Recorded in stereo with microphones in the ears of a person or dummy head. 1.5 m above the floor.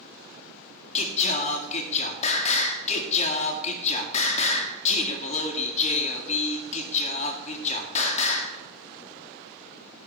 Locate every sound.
0.9 s singing: 40° left (ahead or behind), 2 m